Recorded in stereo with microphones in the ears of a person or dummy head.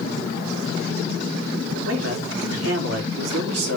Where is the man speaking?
75° right (ahead or behind), 4 m.